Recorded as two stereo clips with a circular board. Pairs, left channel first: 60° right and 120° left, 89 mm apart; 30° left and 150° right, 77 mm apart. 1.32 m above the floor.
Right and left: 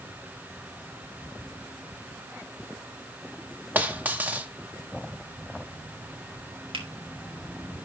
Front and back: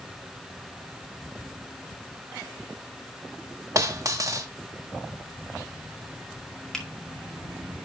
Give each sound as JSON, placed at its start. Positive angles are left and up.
{"t": 3.8, "sound": "a dropped coin", "azimuth_deg": -175, "distance_m": 1.0}
{"t": 6.7, "sound": "a finger snap", "azimuth_deg": 110, "distance_m": 1.9}